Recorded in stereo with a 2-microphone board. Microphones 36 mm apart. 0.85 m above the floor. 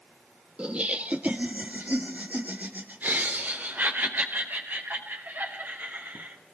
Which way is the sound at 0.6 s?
35° right (ahead or behind).